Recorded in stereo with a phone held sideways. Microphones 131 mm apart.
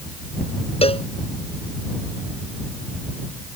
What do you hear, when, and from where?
0.8 s a cowbell: 45° left (ahead or behind)